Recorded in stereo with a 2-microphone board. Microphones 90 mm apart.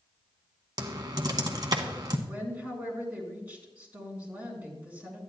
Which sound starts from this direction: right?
Typing on a keyboard, at 0.8 s.